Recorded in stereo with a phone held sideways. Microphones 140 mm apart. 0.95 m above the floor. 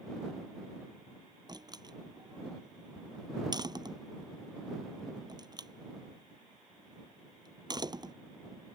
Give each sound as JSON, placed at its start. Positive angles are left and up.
{"t": 1.5, "sound": "a door slam", "side_deg": -30}